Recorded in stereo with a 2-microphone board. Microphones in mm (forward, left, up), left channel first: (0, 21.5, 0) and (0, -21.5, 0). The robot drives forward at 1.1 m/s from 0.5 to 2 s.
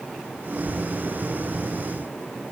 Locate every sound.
Only background noise.